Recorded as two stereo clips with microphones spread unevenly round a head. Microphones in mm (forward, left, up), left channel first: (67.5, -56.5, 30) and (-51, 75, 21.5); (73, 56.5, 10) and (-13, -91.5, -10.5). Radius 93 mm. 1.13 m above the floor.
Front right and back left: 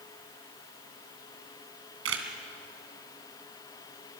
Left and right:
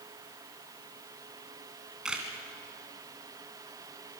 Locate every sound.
2.0 s a camera shutter: 150° left, 2 m